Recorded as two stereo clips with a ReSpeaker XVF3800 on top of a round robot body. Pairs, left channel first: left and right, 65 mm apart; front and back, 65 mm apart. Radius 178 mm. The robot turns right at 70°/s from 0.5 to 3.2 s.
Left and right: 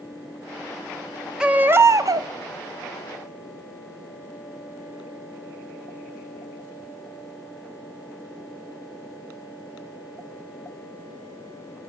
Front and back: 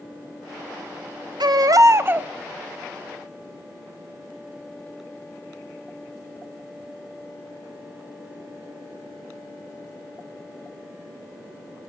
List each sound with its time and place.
1.4 s a baby crying: 170° right, 1.1 m; by 2.3 s 105° right, 1.1 m